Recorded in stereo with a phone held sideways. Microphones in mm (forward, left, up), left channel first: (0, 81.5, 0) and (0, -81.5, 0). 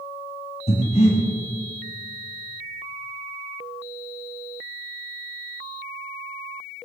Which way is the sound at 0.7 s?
45° left (ahead or behind).